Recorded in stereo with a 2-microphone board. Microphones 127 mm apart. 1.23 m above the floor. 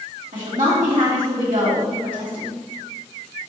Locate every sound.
0.3 s a woman speaking: 80° right, 2.5 m